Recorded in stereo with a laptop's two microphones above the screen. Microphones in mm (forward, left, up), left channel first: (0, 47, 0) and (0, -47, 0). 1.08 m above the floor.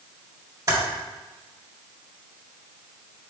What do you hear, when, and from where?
0.7 s typing on a keyboard: 35° right (ahead or behind), 1.6 m